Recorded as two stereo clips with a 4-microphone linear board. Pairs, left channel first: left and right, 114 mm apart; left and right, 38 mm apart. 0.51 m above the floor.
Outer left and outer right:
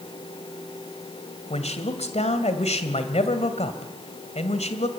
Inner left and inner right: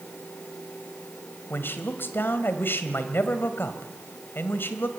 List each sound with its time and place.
1.5 s a man speaking: 70° left (ahead or behind), 2 m